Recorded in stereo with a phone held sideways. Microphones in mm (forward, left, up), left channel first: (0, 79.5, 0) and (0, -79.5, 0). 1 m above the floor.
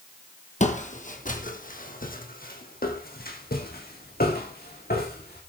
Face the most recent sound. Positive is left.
turn(degrees=75)  # may be behind; listen again after turning